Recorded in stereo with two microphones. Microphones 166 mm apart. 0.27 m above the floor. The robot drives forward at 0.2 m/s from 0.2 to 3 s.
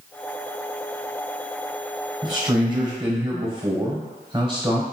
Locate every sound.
2.2 s a man speaking: 30° right (ahead or behind), 1.1 m